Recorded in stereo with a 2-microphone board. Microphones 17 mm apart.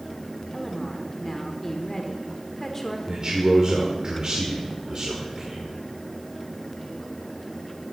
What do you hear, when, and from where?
0.5 s a woman speaking: 15° left (ahead or behind), 1.5 m
3.1 s a man speaking: 45° right (ahead or behind), 1.7 m